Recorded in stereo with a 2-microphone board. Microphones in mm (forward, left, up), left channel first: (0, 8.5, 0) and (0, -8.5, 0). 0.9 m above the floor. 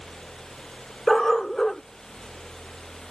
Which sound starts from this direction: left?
A dog barking, at 1.1 s.